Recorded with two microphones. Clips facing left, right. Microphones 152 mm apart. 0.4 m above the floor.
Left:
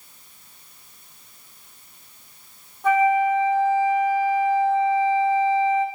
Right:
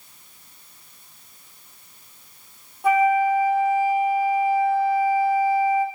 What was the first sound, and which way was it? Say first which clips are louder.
A flute: even; 10° right (ahead or behind).